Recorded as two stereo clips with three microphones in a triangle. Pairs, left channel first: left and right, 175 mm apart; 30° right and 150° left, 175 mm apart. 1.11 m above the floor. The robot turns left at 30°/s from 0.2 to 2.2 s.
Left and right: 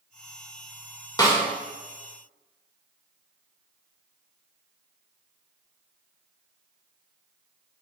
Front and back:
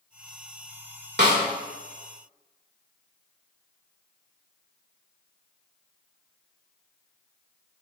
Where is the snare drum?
155° left, 2.5 m; by 1.4 s 150° left, 2.5 m.